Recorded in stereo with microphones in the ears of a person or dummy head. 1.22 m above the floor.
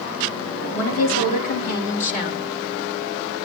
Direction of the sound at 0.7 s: 60° left (ahead or behind).